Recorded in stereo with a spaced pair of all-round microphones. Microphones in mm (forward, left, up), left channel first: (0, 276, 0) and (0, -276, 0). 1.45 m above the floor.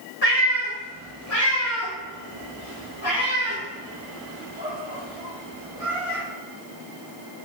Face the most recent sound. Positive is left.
turn(degrees=60)  # may be behind; listen again after turning